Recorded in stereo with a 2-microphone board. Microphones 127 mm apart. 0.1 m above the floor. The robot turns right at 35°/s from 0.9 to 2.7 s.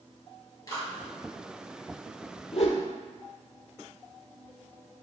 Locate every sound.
0.7 s a clap: 30° left (ahead or behind), 1.8 m
2.5 s a whoosh: 55° left (ahead or behind), 0.6 m; by 2.9 s 60° left (ahead or behind), 0.6 m